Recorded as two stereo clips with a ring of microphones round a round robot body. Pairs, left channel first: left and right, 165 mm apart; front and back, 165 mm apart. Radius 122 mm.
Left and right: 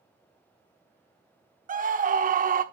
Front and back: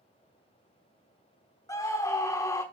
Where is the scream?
70° right, 1.1 m.